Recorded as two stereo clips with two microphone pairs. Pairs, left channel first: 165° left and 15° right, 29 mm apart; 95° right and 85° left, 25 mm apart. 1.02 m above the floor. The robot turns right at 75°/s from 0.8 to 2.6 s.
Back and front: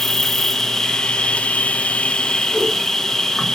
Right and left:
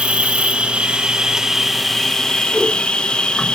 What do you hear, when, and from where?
0.0 s an insect: 95° left, 0.8 m; by 3.5 s 130° right, 0.8 m
2.5 s a whoosh: 65° left, 8 m; by 2.7 s 70° left, 8 m